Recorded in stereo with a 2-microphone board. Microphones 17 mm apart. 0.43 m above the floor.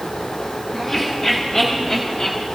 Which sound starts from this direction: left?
Laughter, at 0.7 s.